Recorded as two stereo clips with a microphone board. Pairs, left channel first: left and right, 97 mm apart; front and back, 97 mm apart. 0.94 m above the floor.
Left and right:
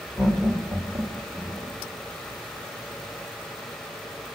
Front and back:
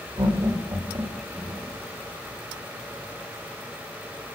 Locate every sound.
0.2 s laughter: 165° right, 1.5 m; by 1.7 s 145° right, 2.5 m